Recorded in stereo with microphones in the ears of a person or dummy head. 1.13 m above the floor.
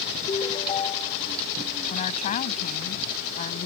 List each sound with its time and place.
0.3 s a ringtone: 30° left (ahead or behind)
1.9 s a woman speaking: 35° left (ahead or behind)